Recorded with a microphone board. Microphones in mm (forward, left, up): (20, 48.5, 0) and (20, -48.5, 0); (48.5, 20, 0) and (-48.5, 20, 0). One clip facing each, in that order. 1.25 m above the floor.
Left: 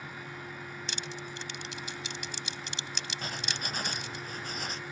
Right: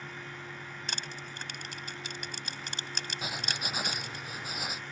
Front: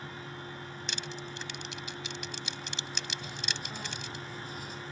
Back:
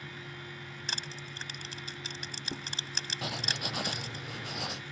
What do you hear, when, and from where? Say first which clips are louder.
0.9 s crushing: even, front 1 dB; 130° right
3.2 s writing: right 1 dB, back 3 dB; 170° right